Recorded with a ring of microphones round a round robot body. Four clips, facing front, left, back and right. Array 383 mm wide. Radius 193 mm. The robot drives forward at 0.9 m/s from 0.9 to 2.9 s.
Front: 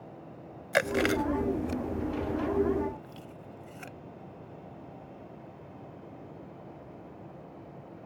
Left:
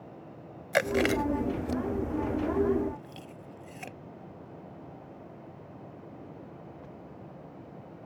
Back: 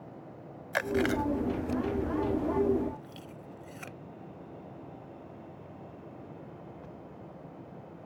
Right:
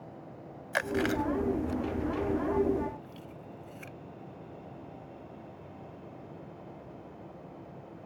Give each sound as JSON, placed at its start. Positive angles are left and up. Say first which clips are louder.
{"t": 0.7, "sound": "chewing", "louder": "left 4 dB, front 2 dB", "azimuth_deg": 50}